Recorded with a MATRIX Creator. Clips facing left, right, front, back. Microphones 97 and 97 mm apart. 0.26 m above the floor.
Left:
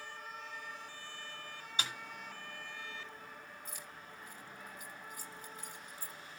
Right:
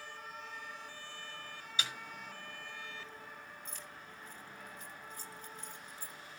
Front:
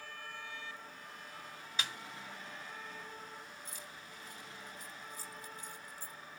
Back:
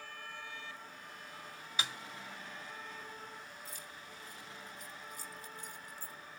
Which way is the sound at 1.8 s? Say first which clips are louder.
Left 1 dB, back 2 dB; 100° left.